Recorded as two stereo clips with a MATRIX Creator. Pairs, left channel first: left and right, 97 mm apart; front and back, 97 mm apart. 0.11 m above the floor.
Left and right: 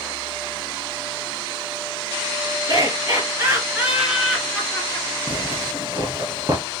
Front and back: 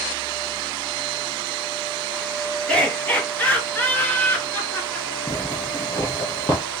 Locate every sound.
2.7 s laughter: 75° right, 2 m; by 5.1 s 45° left, 1.7 m
5.3 s a zipper: 50° right, 1.5 m